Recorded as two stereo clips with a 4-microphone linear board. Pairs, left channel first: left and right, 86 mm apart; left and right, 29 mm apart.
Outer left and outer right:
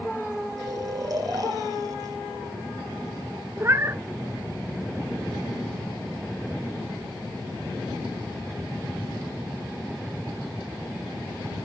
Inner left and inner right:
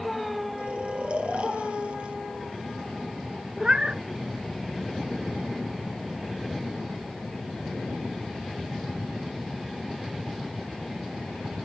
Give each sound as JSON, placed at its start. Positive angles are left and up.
{"t": 0.6, "sound": "snoring", "side_deg": -45, "distance_m": 3.0}
{"t": 3.6, "sound": "a cat meowing", "side_deg": -30, "distance_m": 0.8}